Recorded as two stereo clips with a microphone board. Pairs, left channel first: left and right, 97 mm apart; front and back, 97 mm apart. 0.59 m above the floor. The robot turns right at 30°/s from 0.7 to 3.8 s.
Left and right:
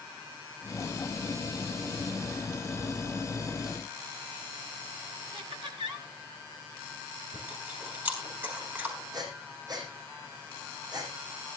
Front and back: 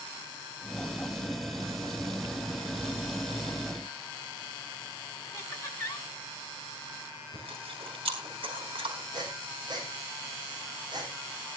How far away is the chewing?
About 5 m.